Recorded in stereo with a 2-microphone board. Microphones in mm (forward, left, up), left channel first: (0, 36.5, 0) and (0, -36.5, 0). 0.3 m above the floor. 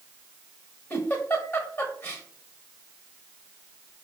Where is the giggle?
25° left (ahead or behind), 0.9 m.